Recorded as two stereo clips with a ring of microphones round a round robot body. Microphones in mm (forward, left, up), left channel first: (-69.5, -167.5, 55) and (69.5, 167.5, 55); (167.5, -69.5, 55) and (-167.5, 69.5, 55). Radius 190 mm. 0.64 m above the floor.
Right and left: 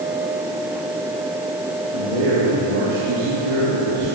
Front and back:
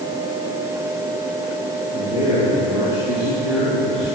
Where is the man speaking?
80° left, 9.5 m; by 4.2 s 65° left, 8 m.